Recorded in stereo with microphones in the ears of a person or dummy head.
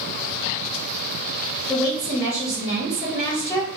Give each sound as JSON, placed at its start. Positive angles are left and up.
{"t": 1.7, "sound": "a woman speaking", "side_deg": 15, "distance_m": 1.2}